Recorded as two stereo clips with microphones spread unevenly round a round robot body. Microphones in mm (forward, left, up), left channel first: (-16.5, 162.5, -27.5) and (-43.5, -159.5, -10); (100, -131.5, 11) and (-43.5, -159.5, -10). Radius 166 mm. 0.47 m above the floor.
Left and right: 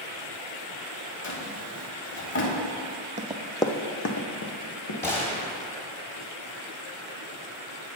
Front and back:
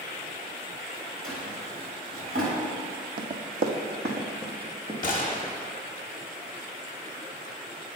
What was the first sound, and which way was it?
A drawer, 140° left.